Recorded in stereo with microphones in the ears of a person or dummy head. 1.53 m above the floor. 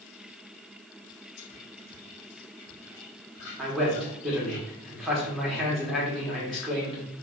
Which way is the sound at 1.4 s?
55° left (ahead or behind).